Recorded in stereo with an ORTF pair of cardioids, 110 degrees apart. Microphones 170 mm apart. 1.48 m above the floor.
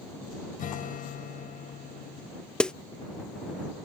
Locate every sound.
0.6 s a guitar: 50° left
2.6 s a snare drum: 5° left